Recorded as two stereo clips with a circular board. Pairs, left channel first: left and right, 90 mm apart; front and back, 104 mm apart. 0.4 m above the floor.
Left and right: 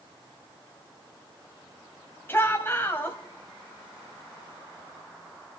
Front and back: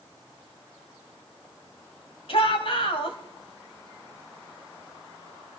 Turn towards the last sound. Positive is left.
turn(degrees=25)